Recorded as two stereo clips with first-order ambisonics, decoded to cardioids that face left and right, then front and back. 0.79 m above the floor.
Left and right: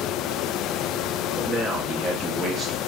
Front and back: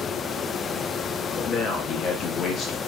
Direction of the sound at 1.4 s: 35° right.